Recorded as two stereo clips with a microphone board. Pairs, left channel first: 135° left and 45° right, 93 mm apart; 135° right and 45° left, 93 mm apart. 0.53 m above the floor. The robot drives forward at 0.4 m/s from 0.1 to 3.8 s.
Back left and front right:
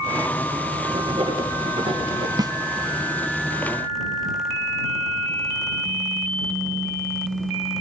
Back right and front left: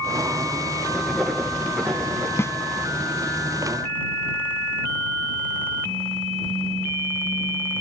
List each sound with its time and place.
0.9 s writing: 50° right, 3.5 m; by 2.3 s 55° right, 3 m
2.4 s a snare drum: 75° right, 0.6 m; by 2.5 s 85° right, 0.6 m